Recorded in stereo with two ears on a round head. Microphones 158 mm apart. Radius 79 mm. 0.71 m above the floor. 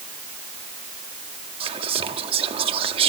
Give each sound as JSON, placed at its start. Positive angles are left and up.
{"t": 1.6, "sound": "whispering", "side_deg": -30, "distance_m": 1.0}